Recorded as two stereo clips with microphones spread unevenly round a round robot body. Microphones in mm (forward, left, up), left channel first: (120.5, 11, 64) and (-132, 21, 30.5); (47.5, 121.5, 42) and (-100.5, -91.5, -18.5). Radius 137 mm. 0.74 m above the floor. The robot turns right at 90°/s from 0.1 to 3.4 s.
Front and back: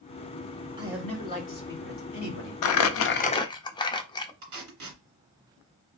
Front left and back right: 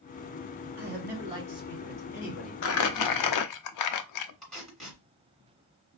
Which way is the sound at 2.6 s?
5° left.